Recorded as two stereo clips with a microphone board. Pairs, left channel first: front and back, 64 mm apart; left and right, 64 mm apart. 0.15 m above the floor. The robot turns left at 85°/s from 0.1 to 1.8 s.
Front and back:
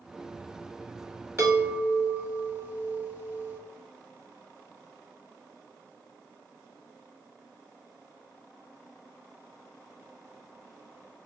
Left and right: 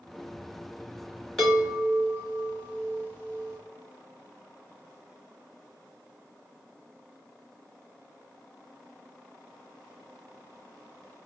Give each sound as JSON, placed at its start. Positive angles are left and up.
{"t": 1.4, "sound": "a chime", "azimuth_deg": 170, "distance_m": 1.9}